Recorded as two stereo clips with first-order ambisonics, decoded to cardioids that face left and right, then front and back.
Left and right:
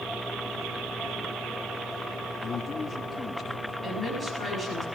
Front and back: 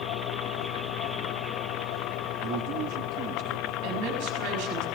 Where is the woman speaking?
170° right, 6 m.